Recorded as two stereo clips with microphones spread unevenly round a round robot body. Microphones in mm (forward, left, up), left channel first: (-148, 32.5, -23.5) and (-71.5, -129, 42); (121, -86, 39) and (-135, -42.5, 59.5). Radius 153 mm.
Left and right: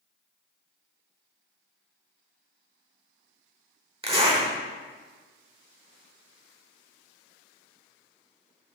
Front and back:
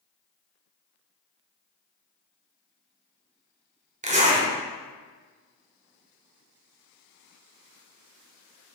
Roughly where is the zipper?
Behind right.